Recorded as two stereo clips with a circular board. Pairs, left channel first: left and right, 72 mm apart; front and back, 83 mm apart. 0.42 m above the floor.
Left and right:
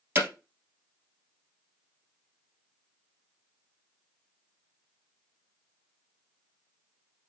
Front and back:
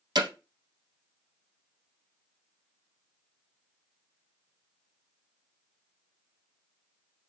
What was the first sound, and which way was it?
Hammering, 150° right.